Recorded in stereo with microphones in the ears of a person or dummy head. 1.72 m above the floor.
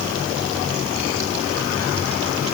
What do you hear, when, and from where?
Only background noise.